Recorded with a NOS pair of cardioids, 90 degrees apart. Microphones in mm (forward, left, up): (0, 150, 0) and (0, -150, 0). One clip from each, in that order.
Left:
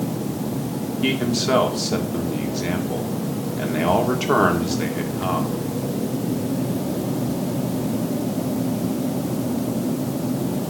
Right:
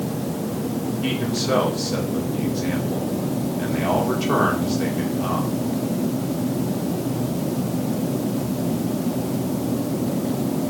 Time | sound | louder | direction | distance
1.0 | a man speaking | left 4 dB | 35° left | 2.5 m